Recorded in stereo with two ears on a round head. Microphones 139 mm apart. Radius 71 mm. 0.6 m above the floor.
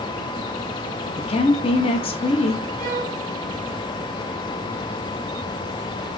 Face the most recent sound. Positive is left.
turn(degrees=-55)  # may be behind; listen again after turning